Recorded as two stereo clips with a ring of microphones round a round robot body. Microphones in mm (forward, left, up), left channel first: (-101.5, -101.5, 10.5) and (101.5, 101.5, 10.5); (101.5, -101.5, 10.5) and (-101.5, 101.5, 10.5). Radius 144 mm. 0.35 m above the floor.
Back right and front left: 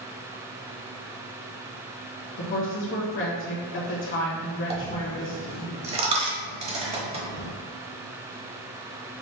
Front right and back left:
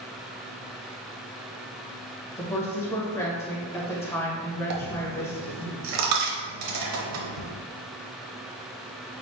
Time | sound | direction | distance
2.4 | a woman speaking | 120° right | 1.3 m
4.7 | a dropped coin | 115° left | 0.9 m